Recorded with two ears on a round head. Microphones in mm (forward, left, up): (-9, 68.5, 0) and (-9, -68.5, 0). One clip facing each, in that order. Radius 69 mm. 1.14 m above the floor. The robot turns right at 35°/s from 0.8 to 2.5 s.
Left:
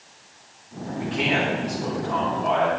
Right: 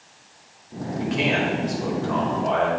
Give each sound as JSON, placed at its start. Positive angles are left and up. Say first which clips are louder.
{"t": 1.0, "sound": "a man speaking", "louder": "right 1 dB", "azimuth_deg": -105, "distance_m": 4.5}